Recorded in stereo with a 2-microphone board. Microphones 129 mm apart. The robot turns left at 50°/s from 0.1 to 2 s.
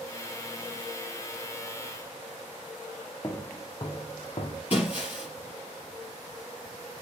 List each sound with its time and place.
3.2 s footsteps: 30° left (ahead or behind), 1.6 m; by 4.6 s 50° left (ahead or behind), 1.9 m
4.7 s breaking glass: 55° left (ahead or behind), 3.5 m